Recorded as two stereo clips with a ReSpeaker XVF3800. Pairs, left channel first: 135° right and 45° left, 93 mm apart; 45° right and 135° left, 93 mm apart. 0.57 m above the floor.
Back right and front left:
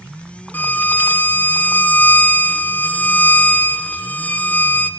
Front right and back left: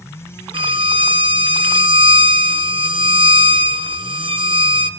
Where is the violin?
155° left, 1.5 m.